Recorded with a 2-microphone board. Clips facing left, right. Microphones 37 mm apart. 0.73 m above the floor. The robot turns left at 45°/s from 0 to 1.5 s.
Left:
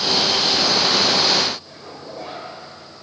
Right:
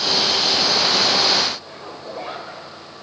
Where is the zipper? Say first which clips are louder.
Right 3 dB; 20° right (ahead or behind), 4 m.